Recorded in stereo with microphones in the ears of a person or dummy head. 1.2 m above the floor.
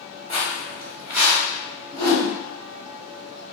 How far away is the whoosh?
About 1.7 m.